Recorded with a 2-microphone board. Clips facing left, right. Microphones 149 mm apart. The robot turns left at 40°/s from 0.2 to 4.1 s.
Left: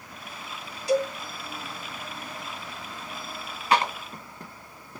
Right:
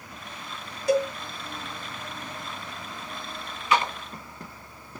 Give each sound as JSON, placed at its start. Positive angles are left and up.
{"t": 0.9, "sound": "a cowbell", "side_deg": -50, "distance_m": 1.5}
{"t": 3.7, "sound": "a clap", "side_deg": 40, "distance_m": 1.7}